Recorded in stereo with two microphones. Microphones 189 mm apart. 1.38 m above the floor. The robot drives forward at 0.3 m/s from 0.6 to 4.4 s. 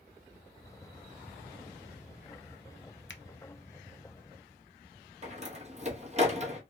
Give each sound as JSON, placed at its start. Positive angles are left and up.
{"t": 3.1, "sound": "a finger snap", "side_deg": 80, "distance_m": 0.6}
{"t": 5.2, "sound": "a door slam", "side_deg": -35, "distance_m": 1.2}